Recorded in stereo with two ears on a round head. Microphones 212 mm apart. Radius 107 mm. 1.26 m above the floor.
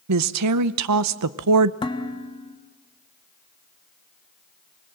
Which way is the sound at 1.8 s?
20° left (ahead or behind).